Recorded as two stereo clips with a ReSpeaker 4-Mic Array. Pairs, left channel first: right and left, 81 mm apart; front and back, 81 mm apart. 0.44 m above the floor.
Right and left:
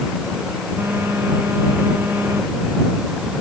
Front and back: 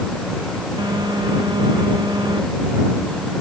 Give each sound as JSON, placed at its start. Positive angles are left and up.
{"t": 0.8, "sound": "a phone buzzing", "azimuth_deg": 155}